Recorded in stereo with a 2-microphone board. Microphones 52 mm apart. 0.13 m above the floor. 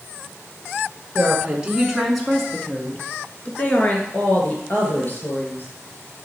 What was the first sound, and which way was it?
A woman speaking, 20° right (ahead or behind).